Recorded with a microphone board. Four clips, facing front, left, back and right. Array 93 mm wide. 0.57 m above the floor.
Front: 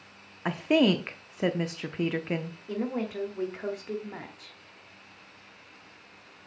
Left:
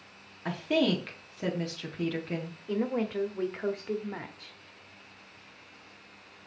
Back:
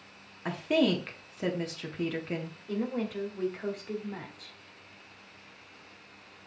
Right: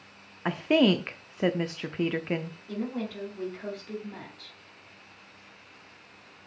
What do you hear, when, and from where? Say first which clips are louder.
0.5 s a woman speaking: right 5 dB, front 3 dB; 55° right, 0.7 m
2.7 s a woman speaking: left 4 dB, front 1 dB; 65° left, 1.4 m